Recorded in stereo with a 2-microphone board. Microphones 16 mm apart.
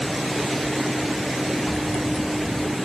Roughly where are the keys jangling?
Left.